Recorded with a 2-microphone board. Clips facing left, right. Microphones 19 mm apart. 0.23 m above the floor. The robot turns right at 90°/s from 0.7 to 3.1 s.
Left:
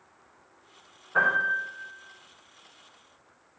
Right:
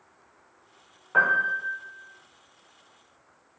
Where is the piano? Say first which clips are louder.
Right 2 dB; 65° right, 1.7 m; by 1.8 s 5° right, 1.7 m.